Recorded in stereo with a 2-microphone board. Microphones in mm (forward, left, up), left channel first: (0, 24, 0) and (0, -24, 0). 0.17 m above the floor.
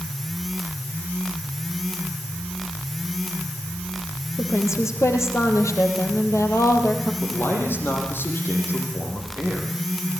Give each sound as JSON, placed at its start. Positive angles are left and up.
{"t": 4.4, "sound": "a woman speaking", "side_deg": 70, "distance_m": 4.0}
{"t": 7.2, "sound": "a man speaking", "side_deg": 50, "distance_m": 8.0}